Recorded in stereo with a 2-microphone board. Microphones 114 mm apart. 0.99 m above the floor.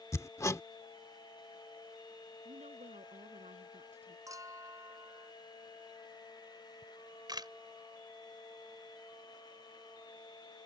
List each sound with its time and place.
0.1 s hammering: 25° left (ahead or behind)
2.5 s a woman speaking: 80° right
4.3 s a clink: 30° right (ahead or behind)
6.8 s a camera shutter: 35° right (ahead or behind)